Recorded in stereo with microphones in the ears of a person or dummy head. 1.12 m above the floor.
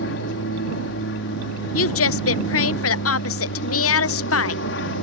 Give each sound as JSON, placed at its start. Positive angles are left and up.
{"t": 0.0, "sound": "an aircraft", "side_deg": 55}
{"t": 1.7, "sound": "a woman speaking", "side_deg": 60}